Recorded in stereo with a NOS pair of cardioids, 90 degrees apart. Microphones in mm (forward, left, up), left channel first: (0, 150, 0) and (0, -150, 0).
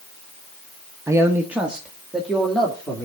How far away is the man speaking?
About 1.1 m.